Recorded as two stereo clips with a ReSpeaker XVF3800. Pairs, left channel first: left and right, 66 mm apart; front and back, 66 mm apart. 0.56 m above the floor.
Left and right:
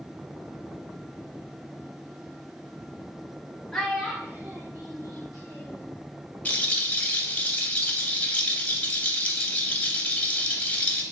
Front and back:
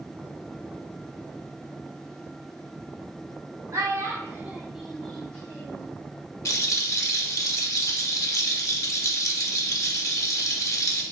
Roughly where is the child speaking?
Behind.